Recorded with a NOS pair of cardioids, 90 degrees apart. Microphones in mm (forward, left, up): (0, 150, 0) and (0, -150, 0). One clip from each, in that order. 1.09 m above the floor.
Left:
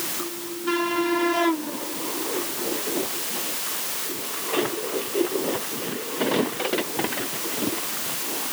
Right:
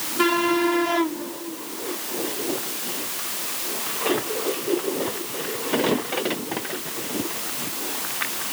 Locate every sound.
Only background noise.